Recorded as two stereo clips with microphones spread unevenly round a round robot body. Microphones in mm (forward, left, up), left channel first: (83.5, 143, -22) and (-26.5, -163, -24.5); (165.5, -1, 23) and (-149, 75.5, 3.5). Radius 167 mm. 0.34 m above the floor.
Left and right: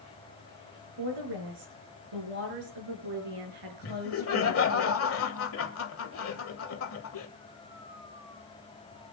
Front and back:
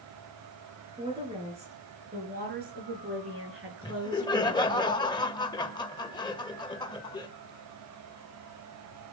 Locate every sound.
1.0 s a woman speaking: 115° right, 5.5 m; by 4.8 s 150° right, 6.5 m
3.8 s laughter: 60° left, 1.9 m